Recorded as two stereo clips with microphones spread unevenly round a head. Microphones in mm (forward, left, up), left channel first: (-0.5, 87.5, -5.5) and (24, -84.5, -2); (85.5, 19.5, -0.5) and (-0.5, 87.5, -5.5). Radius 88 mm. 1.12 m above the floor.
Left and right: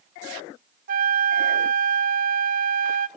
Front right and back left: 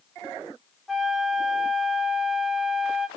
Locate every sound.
0.9 s a flute: 130° right, 0.7 m